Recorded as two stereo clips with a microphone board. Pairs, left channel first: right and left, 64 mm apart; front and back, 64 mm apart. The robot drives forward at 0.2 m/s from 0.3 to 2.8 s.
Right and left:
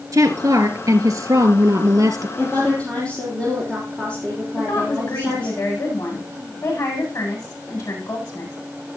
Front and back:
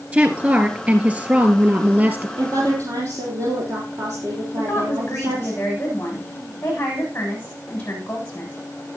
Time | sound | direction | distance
0.1 | a woman speaking | 115° left | 3 m
2.4 | a woman speaking | 160° right | 4.5 m
4.6 | a woman speaking | 65° right | 8 m